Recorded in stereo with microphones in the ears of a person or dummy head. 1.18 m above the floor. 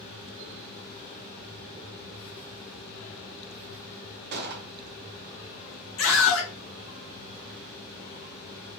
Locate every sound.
4.3 s a gunshot: 55° right (ahead or behind), 0.8 m
6.0 s a scream: 75° left (ahead or behind), 2.5 m